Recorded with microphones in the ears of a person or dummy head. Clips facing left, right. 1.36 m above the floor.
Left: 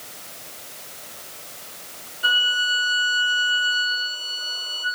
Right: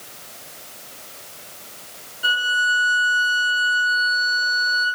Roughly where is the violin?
Centre.